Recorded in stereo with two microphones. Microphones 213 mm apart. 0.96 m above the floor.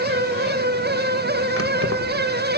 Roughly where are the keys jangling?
Right.